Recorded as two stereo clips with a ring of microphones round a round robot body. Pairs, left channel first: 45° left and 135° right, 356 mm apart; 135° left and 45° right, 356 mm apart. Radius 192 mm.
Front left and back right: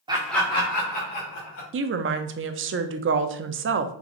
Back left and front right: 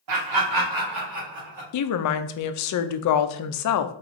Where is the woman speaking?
170° left, 0.5 m.